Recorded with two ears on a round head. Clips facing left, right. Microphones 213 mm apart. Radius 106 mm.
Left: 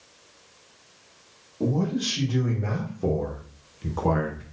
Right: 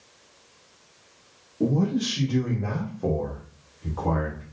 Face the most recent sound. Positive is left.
turn(degrees=55)  # may be behind; listen again after turning